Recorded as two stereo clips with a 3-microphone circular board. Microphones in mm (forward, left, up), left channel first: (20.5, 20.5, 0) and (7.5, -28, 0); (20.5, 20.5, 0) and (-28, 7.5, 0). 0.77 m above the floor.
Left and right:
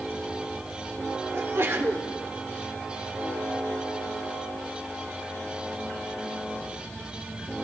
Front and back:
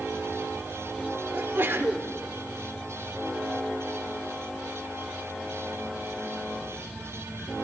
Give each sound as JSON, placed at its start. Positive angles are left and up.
{"t": 1.3, "sound": "a sneeze", "azimuth_deg": -130, "distance_m": 2.5}